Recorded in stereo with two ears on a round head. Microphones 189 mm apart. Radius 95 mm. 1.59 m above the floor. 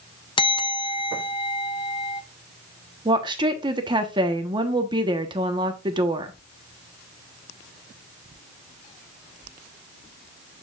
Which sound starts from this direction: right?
A woman speaking, at 3.0 s.